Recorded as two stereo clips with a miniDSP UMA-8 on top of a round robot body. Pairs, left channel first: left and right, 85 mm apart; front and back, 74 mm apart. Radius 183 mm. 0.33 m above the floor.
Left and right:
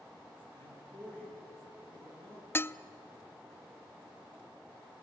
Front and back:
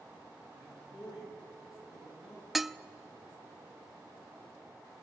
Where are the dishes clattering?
95° left, 0.6 m.